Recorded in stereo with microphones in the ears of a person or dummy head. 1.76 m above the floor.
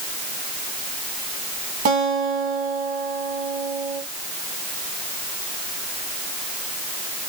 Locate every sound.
1.9 s a guitar: 50° right (ahead or behind), 2 m